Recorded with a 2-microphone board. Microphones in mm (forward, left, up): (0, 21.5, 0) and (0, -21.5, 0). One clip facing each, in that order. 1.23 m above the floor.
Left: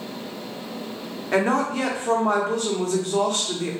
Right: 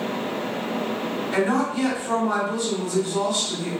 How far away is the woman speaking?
About 0.8 m.